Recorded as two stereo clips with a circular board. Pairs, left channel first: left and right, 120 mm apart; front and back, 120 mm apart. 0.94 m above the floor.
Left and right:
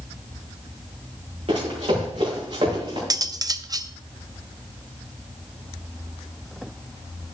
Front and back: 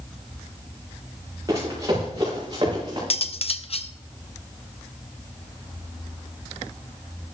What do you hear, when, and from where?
1.5 s running footsteps: 120° right, 7 m; by 3.0 s 130° right, 7 m
3.1 s cutlery clinking: 35° right, 0.6 m